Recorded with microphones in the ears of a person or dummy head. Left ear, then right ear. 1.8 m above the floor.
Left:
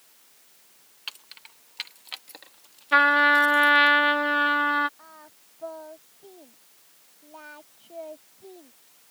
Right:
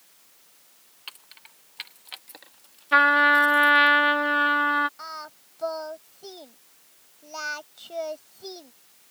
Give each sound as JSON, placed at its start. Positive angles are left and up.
{"t": 1.1, "sound": "keys jangling", "side_deg": 10}
{"t": 2.9, "sound": "a trumpet", "side_deg": -5}
{"t": 5.0, "sound": "singing", "side_deg": -70}